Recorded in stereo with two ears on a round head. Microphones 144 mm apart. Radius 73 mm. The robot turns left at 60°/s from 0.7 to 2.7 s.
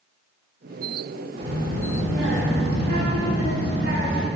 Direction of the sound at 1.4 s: 35° right.